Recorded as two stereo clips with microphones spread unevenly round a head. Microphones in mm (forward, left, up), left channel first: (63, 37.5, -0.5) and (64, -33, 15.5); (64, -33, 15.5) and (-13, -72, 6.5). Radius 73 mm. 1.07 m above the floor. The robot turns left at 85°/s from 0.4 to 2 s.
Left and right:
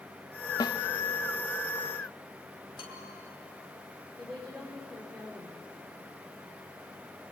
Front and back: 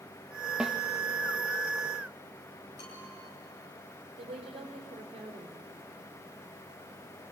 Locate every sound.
0.6 s a snare drum: 125° left, 1.0 m; by 0.8 s 110° left, 1.0 m
2.8 s a bell: 85° left, 5 m
4.2 s a woman speaking: 170° right, 4.5 m